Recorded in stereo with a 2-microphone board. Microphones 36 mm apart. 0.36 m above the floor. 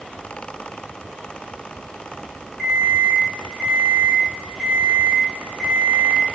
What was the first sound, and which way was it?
An alarm clock, 15° right (ahead or behind).